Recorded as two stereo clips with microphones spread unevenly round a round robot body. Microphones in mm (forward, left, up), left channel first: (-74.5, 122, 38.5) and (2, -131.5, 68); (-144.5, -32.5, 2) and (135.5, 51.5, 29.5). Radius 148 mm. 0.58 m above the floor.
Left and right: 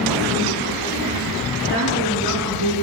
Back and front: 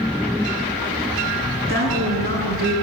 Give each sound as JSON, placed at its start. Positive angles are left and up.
{"t": 1.7, "sound": "a woman speaking", "azimuth_deg": 75, "distance_m": 8.0}